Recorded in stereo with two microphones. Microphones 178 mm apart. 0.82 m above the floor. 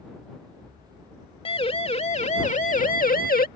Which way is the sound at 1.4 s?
30° left (ahead or behind).